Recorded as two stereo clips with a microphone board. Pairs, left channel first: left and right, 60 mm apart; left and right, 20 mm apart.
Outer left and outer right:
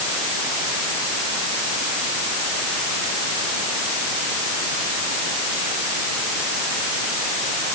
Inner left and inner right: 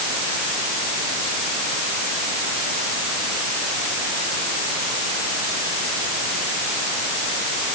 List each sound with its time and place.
Only background noise.